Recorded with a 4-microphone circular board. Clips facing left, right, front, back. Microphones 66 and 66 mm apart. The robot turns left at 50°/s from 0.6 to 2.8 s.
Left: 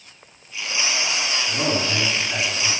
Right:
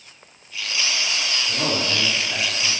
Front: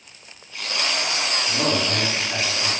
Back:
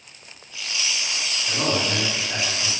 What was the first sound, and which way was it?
A man speaking, 120° left.